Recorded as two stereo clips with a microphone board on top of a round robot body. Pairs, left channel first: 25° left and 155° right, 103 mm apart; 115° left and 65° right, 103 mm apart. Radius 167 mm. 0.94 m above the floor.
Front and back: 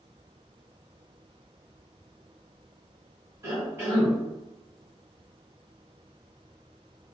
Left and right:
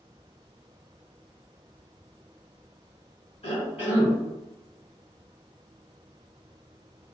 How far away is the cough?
About 1.5 m.